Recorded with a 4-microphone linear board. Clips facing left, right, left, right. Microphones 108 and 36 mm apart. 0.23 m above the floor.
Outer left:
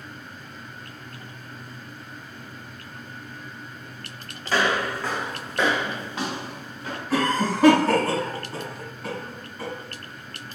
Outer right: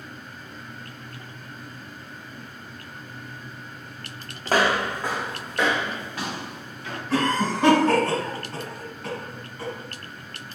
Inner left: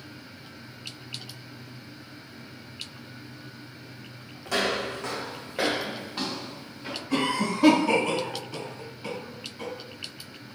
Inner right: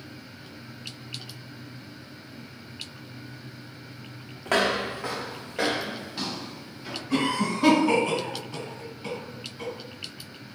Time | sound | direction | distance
4.5 | footsteps | 50° right (ahead or behind) | 0.5 m
7.1 | a cough | 5° left (ahead or behind) | 1.6 m